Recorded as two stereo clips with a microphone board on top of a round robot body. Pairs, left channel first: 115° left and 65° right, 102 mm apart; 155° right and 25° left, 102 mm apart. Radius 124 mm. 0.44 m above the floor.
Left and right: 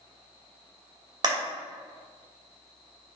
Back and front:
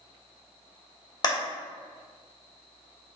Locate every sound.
1.2 s a clap: 115° right, 2.5 m